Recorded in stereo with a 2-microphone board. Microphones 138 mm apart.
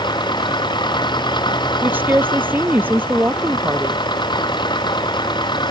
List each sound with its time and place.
0.0 s an engine running: 35° left (ahead or behind)
1.8 s a woman speaking: 15° right (ahead or behind)